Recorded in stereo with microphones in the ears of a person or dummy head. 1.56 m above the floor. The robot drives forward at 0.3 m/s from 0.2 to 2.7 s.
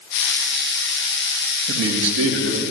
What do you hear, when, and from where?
1.7 s a man speaking: 75° right (ahead or behind), 1.8 m; by 2.6 s 70° right (ahead or behind), 1.9 m